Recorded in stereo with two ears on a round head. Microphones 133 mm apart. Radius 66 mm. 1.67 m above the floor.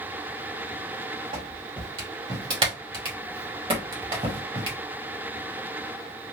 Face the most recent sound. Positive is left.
turn(degrees=-35)  # may be behind; listen again after turning